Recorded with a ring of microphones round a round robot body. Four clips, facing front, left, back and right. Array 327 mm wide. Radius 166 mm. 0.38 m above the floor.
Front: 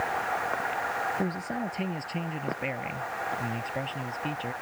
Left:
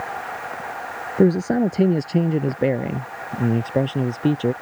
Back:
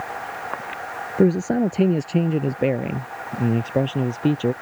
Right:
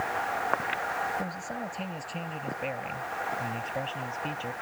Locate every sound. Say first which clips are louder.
1.2 s a man speaking: left 18 dB, back 13 dB; 125° left; by 4.5 s 130° left